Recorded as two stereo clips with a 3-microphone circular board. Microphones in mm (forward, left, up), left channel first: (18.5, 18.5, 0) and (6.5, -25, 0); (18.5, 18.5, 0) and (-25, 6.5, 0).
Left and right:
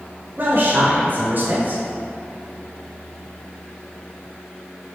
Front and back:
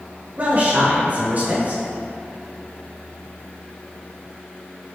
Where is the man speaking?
130° right, 0.9 m.